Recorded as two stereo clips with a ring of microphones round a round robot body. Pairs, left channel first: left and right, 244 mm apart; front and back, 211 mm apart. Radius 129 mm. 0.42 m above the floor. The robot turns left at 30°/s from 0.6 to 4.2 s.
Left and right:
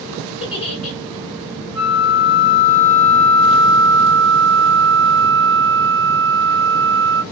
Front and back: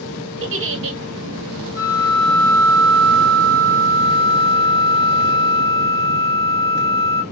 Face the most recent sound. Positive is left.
turn(degrees=0)